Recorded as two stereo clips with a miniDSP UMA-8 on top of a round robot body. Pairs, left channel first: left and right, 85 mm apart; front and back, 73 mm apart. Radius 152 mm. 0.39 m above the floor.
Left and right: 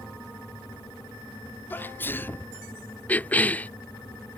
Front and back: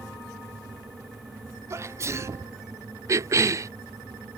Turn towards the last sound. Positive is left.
turn(degrees=155)